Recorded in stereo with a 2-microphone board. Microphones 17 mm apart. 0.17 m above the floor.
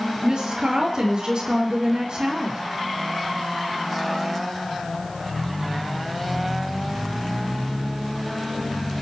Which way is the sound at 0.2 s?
60° right (ahead or behind).